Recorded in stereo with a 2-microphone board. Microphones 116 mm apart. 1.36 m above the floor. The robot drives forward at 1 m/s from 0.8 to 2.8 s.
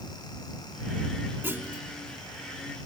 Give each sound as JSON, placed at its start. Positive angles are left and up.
{"t": 1.4, "sound": "a clunk", "side_deg": -20}